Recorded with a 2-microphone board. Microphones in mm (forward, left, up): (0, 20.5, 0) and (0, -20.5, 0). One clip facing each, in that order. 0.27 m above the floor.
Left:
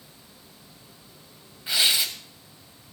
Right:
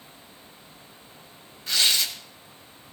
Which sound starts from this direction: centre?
Tearing paper, at 1.7 s.